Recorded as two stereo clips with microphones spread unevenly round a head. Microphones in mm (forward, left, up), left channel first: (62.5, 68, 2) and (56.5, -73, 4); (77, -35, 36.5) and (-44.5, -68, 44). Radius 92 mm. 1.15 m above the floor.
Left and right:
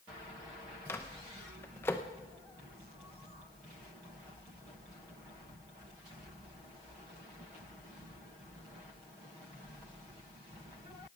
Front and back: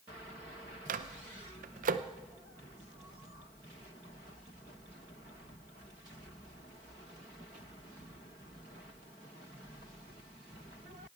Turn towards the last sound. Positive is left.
turn(degrees=165)